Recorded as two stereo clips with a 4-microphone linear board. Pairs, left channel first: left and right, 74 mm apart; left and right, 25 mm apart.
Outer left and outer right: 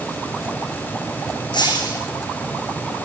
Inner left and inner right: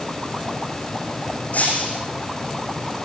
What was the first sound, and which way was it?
Breaking glass, 80° left.